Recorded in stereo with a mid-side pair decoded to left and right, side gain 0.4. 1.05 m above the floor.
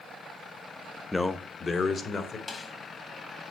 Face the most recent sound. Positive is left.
turn(degrees=45)